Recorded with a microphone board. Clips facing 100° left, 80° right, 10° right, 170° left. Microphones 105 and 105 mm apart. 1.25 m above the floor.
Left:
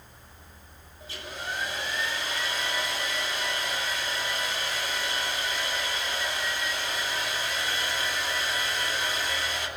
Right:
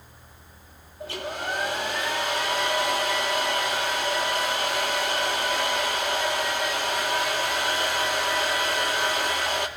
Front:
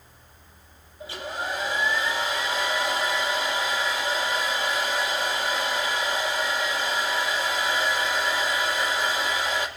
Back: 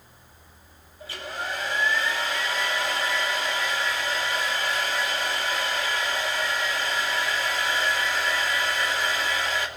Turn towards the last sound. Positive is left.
turn(degrees=-75)